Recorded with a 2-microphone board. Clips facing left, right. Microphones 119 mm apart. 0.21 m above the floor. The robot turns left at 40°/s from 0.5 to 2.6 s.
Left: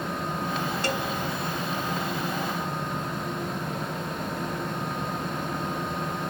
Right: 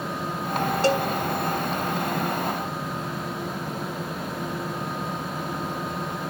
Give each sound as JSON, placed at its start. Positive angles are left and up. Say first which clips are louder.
{"t": 0.8, "sound": "a cowbell", "louder": "right 10 dB", "side_deg": -30, "distance_m": 0.7}